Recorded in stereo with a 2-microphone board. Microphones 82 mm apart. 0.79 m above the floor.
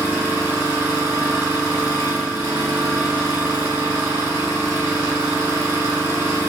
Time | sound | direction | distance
0.0 | an engine running | 30° right (ahead or behind) | 0.9 m